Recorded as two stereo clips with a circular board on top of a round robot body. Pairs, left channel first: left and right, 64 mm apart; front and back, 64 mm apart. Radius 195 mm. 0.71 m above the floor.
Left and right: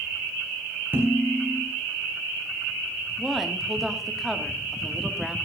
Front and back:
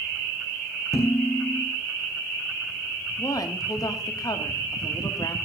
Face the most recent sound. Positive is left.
turn(degrees=0)